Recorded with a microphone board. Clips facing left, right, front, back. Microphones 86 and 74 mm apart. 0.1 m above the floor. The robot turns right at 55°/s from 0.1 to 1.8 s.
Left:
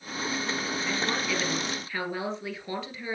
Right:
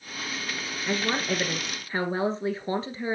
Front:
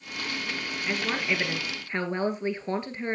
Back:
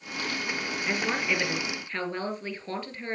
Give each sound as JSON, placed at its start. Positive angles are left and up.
{"t": 0.9, "sound": "a woman speaking", "azimuth_deg": -110, "distance_m": 1.6}